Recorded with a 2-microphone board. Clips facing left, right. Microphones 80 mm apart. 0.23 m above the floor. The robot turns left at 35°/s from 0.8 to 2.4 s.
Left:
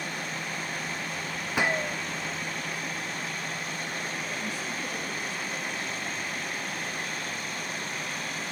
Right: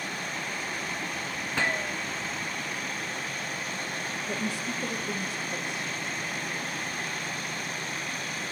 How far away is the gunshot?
About 0.8 m.